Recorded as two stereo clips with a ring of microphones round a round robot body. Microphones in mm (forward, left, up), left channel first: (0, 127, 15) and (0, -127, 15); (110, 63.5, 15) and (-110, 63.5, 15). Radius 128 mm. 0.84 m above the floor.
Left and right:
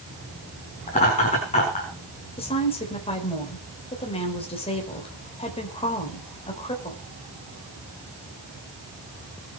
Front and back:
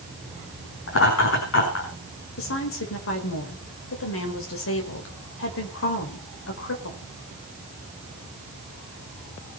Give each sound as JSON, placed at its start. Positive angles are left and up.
{"t": 0.9, "sound": "laughter", "azimuth_deg": 25, "distance_m": 7.0}
{"t": 2.4, "sound": "a woman speaking", "azimuth_deg": 20, "distance_m": 4.5}